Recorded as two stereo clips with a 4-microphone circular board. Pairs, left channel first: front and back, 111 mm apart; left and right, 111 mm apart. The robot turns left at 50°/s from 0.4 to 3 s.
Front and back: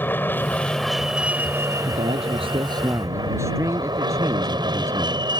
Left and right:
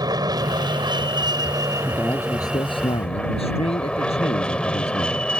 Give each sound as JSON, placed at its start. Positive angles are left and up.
{"t": 0.0, "sound": "an aircraft", "azimuth_deg": -65}
{"t": 1.9, "sound": "a man speaking", "azimuth_deg": 175}